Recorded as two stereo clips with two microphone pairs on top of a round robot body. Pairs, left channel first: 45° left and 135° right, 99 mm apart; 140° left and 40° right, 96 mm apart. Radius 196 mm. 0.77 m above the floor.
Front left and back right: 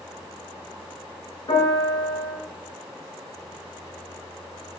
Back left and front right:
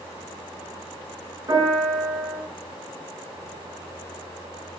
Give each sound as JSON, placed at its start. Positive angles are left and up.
{"t": 1.5, "sound": "a piano", "azimuth_deg": 10, "distance_m": 9.0}